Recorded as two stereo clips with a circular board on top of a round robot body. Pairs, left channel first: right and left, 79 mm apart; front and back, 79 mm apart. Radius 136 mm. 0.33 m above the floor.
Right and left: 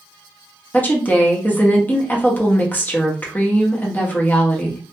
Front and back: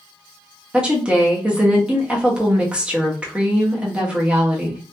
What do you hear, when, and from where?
0.7 s a woman speaking: 120° right, 1.2 m